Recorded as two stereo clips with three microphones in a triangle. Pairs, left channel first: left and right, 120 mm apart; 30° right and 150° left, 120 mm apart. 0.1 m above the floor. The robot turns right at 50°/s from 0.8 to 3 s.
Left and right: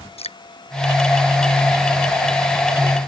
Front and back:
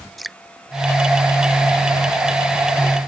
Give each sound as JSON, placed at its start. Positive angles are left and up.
{"t": 0.2, "sound": "dripping", "azimuth_deg": 60}